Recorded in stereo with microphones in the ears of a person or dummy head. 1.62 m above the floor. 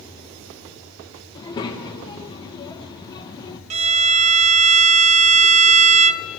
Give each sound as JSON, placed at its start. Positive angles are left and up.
{"t": 1.4, "sound": "a child speaking", "side_deg": 25, "distance_m": 1.2}
{"t": 3.7, "sound": "a violin", "side_deg": -35, "distance_m": 0.6}